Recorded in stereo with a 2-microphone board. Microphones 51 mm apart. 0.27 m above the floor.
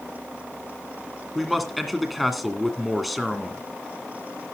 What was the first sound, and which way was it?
A man speaking, centre (ahead or behind).